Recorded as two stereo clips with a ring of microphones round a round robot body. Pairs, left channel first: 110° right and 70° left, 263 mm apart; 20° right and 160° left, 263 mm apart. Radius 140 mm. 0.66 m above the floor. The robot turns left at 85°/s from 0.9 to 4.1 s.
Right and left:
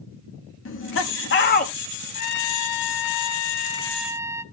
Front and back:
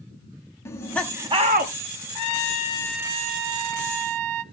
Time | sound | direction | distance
0.7 | laughter | 100° right | 1.4 m
2.1 | a trumpet | 45° right | 0.6 m